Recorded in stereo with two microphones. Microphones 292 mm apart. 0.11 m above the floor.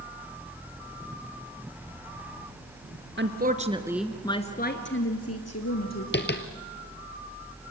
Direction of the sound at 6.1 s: 35° left (ahead or behind).